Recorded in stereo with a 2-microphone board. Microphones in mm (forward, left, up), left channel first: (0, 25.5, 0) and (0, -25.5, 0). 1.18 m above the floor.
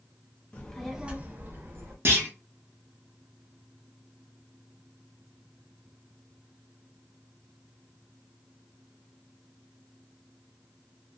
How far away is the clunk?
About 0.9 m.